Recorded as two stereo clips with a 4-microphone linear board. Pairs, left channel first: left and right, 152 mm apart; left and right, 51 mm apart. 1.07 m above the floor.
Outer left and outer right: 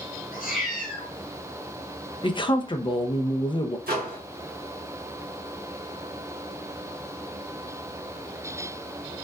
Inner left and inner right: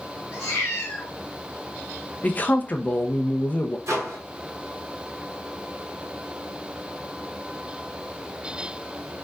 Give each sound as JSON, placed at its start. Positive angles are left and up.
{"t": 0.3, "sound": "a cat meowing", "side_deg": 65, "distance_m": 2.5}
{"t": 2.2, "sound": "a man speaking", "side_deg": 30, "distance_m": 0.5}
{"t": 3.9, "sound": "a microwave", "side_deg": -90, "distance_m": 1.4}